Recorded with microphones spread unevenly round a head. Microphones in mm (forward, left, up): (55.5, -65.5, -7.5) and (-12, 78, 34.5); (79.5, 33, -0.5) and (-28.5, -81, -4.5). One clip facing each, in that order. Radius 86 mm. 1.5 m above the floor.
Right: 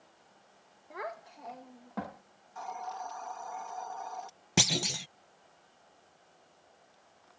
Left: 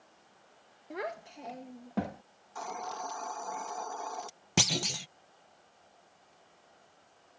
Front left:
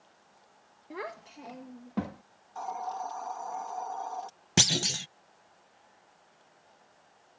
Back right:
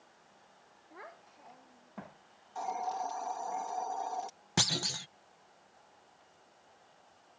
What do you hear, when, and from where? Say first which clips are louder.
0.9 s a child speaking: left 3 dB, front left 12 dB; 60° left; by 2.2 s 55° left
2.5 s a hiss: left 1 dB, even; 150° left
4.6 s a clunk: right 1 dB, front left 5 dB; 50° left